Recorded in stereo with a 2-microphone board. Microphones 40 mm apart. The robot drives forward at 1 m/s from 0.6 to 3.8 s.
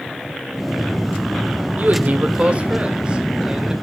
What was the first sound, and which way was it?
A man speaking, 50° right (ahead or behind).